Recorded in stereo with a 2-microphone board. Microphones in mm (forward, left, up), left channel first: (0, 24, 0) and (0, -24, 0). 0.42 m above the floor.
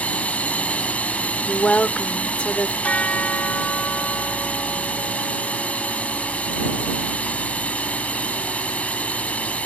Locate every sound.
0.0 s a drone: 30° left (ahead or behind)
1.5 s a woman speaking: 25° left (ahead or behind)
2.8 s a bell: 30° left (ahead or behind)